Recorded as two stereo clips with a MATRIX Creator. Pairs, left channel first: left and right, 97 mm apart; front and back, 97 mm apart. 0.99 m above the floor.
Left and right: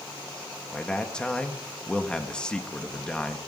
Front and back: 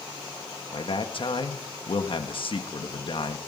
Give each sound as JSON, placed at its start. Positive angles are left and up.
{"t": 0.7, "sound": "a man speaking", "azimuth_deg": 10, "distance_m": 1.6}